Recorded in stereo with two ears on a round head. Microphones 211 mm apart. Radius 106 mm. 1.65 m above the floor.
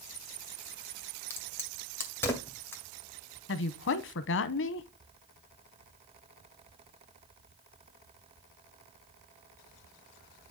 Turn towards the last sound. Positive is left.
turn(degrees=50)  # may be behind; listen again after turning